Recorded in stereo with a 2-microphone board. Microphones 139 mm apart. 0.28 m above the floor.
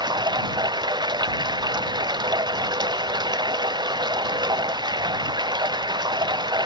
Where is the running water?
30° right (ahead or behind).